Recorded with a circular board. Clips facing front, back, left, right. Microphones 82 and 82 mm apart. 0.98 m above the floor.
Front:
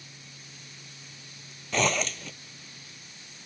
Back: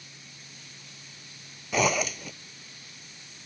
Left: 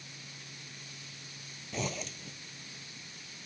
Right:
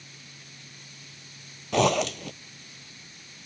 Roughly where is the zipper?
Right.